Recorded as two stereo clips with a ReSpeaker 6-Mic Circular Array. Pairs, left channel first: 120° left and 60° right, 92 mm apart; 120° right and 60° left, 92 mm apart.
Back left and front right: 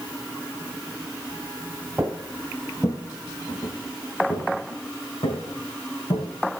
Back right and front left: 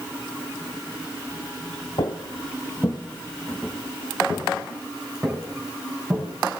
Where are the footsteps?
135° right, 1.0 m; by 6.2 s 135° left, 4.5 m.